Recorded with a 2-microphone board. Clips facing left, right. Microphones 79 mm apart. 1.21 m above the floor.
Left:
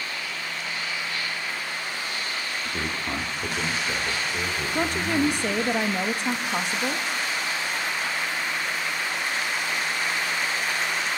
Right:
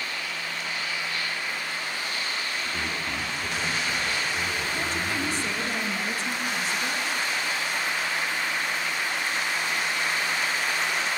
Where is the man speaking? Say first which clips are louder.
Left 1 dB; 25° left (ahead or behind), 2.5 m; by 5.6 s 40° left (ahead or behind), 6.5 m.